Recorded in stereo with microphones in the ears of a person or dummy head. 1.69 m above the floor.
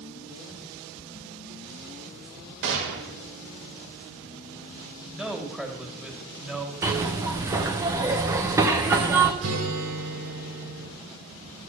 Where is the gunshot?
65° right (ahead or behind), 3 m.